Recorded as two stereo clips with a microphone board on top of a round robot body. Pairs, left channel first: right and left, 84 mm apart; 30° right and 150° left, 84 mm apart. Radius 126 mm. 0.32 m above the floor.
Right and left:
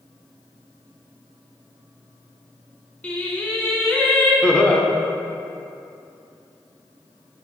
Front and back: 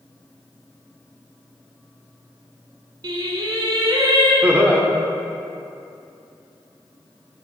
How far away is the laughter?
About 0.9 m.